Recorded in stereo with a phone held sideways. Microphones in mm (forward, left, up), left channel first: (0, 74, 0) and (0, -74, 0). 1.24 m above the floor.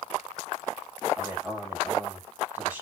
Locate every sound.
1.2 s a man speaking: 15° right (ahead or behind), 6 m